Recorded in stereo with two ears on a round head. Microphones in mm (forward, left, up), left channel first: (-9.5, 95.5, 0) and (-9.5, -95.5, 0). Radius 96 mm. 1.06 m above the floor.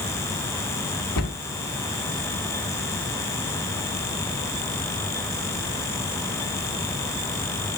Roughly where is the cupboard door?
Left.